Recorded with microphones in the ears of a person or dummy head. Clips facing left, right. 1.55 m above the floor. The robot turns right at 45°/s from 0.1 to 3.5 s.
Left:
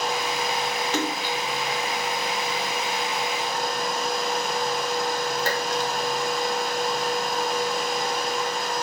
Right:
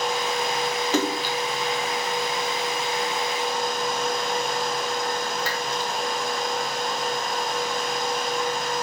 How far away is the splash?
About 0.8 m.